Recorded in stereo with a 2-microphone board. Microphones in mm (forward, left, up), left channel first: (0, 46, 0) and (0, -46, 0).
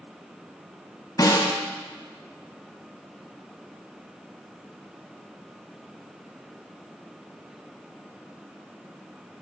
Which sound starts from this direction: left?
A snare drum, at 1.2 s.